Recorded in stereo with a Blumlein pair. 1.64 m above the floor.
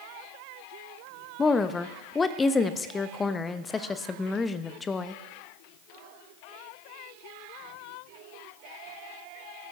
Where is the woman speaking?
15° left, 0.8 m.